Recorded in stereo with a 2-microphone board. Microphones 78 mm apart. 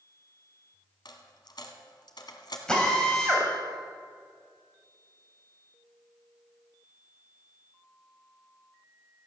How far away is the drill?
About 3 m.